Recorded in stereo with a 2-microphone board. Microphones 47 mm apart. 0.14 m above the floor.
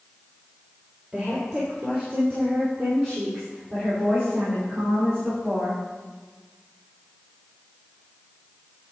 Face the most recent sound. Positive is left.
turn(degrees=-65)  # may be behind; listen again after turning